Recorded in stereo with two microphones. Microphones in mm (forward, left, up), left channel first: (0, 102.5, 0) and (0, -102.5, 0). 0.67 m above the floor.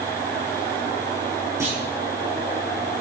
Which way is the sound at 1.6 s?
15° right (ahead or behind).